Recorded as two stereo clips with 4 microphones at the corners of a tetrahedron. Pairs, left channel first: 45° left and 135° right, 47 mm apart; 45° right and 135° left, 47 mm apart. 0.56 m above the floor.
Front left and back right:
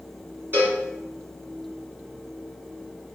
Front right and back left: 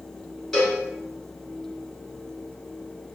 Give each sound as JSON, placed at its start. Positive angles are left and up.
{"t": 0.5, "sound": "a cowbell", "azimuth_deg": -120, "distance_m": 1.6}